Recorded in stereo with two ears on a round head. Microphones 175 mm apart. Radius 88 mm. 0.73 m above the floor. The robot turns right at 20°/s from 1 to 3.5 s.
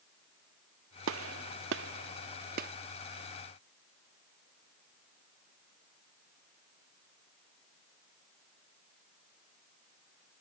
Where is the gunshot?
75° right (ahead or behind), 0.5 m; by 2.7 s 45° right (ahead or behind), 0.5 m.